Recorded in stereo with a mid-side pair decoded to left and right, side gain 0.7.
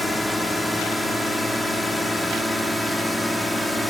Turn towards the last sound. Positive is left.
turn(degrees=0)